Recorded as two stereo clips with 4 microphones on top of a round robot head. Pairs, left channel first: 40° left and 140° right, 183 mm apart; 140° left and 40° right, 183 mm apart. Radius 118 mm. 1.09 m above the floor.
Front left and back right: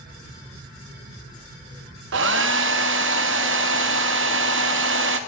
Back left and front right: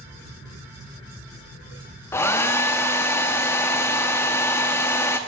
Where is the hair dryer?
145° right, 0.6 m.